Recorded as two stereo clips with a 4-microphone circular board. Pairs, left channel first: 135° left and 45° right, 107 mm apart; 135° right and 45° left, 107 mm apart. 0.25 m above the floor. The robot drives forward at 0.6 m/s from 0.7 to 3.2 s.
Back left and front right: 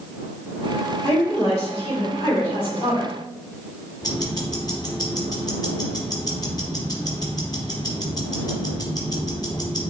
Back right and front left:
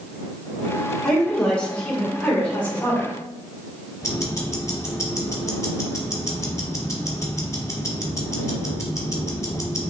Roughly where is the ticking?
Behind.